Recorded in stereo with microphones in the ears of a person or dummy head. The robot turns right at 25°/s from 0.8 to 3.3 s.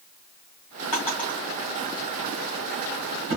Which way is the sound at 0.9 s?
15° left (ahead or behind).